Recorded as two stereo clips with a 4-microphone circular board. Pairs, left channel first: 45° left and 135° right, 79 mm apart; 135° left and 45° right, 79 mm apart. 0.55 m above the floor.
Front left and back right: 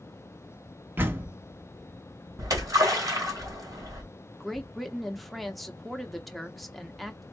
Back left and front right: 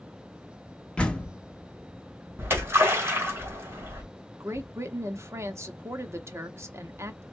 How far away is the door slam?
About 0.8 m.